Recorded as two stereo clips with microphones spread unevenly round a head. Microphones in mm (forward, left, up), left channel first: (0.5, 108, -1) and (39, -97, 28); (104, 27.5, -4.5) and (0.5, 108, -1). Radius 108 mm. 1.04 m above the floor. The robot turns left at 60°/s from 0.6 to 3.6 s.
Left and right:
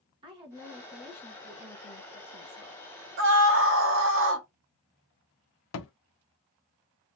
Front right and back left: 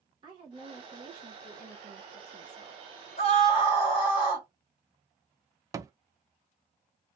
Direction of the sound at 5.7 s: 80° left.